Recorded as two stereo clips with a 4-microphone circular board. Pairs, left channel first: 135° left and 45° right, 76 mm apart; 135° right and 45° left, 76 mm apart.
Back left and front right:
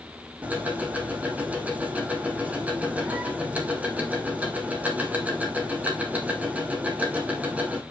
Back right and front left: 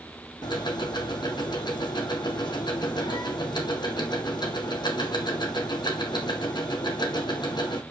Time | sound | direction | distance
0.4 | ticking | 115° right | 1.4 m